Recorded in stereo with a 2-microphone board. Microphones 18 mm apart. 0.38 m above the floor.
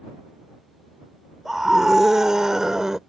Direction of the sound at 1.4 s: 20° right (ahead or behind).